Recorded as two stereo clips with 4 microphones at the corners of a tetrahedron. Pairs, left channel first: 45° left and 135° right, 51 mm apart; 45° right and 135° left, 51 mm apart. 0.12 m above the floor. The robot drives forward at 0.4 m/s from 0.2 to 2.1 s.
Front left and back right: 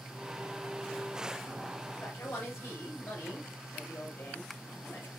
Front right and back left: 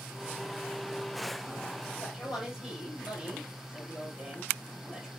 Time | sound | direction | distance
2.0 | a man speaking | 35° left | 2.5 m